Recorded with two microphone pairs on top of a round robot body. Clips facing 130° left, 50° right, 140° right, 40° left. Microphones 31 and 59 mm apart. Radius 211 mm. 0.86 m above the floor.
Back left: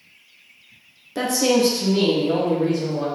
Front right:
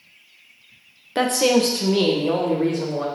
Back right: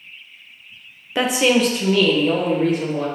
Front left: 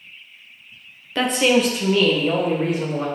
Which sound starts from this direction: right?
A woman speaking, at 1.1 s.